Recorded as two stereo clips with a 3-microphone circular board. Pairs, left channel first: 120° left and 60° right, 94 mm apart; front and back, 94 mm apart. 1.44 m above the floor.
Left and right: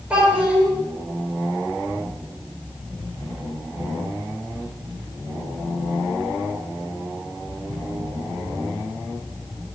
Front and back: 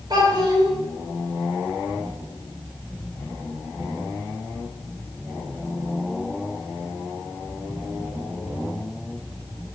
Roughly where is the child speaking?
Behind right.